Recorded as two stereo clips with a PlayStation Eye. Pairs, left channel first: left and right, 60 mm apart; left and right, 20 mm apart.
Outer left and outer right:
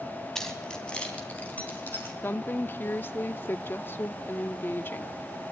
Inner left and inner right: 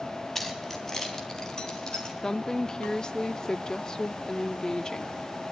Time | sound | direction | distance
0.3 | keys jangling | 10° left (ahead or behind) | 2.5 m
2.2 | a woman speaking | 35° left (ahead or behind) | 0.7 m